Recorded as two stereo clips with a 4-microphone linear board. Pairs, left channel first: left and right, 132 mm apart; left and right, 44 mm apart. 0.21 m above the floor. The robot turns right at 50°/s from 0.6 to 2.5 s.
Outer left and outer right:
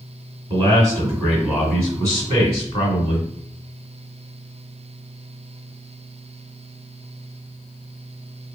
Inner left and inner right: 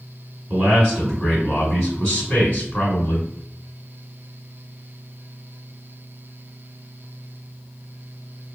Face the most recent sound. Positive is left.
turn(degrees=45)